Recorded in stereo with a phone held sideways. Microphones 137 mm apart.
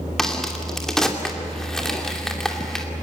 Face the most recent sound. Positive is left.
turn(degrees=5)  # may be behind; listen again after turning